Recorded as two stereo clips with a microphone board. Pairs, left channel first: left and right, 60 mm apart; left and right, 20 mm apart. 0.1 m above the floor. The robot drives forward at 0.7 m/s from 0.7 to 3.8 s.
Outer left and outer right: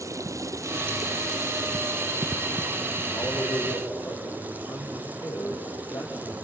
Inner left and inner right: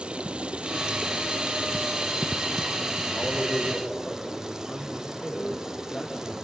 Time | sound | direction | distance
0.0 | running water | 60° right (ahead or behind) | 1.1 m
3.1 | a man speaking | 75° left (ahead or behind) | 6.5 m